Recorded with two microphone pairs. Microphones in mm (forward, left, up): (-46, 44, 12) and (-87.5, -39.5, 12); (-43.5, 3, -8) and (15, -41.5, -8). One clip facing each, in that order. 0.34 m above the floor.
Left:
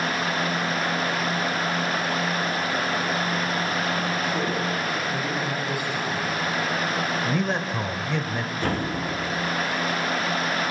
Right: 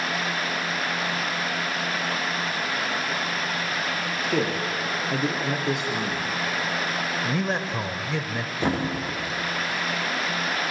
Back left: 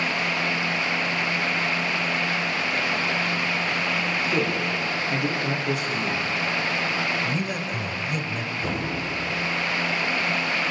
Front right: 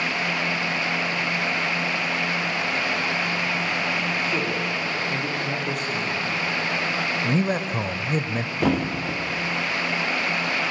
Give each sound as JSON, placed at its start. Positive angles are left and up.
{"t": 4.2, "sound": "a man speaking", "azimuth_deg": -140, "distance_m": 7.0}
{"t": 7.2, "sound": "a man speaking", "azimuth_deg": -30, "distance_m": 1.0}
{"t": 8.6, "sound": "a thud", "azimuth_deg": -40, "distance_m": 5.0}